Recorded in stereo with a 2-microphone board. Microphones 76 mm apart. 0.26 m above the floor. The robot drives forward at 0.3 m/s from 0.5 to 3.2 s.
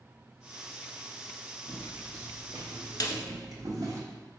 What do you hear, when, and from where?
1.7 s footsteps: 25° right (ahead or behind), 1.2 m; by 4.0 s 45° right (ahead or behind), 1.0 m
3.0 s a snare drum: 60° left (ahead or behind), 0.6 m